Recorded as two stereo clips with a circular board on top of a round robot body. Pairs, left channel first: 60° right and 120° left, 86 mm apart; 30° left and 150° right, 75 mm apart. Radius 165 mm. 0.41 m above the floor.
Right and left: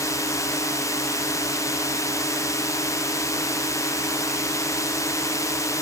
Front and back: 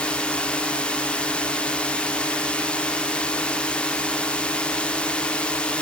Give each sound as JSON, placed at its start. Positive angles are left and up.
{"t": 0.0, "sound": "a drone", "azimuth_deg": -40}